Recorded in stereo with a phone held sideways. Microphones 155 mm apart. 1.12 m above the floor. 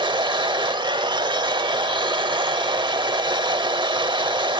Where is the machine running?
30° right (ahead or behind), 0.9 m.